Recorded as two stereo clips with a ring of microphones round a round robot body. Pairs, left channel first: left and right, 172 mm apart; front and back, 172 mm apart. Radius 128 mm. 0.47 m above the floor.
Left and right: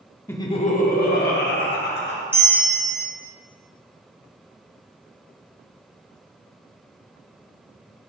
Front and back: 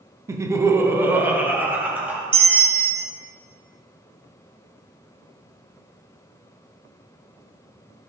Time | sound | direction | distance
0.3 | laughter | 145° left | 0.8 m
2.3 | a bell | 160° right | 1.2 m